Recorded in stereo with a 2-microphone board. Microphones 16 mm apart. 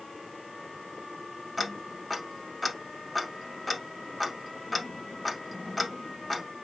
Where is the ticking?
5° left (ahead or behind), 0.8 m.